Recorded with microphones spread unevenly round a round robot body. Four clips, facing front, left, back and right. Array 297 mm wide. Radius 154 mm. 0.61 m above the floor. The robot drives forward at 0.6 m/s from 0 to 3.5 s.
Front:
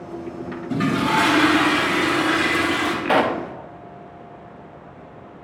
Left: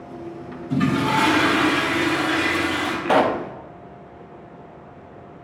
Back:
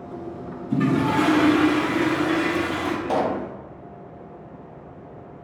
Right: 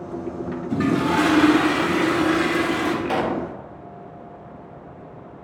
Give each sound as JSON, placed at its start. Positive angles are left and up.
{"t": 0.7, "sound": "a toilet flushing", "azimuth_deg": -10, "distance_m": 3.0}
{"t": 3.0, "sound": "a pop", "azimuth_deg": 40, "distance_m": 0.6}